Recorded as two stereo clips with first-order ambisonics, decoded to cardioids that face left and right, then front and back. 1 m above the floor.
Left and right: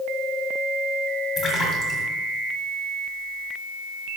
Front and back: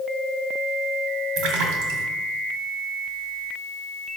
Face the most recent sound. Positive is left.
turn(degrees=170)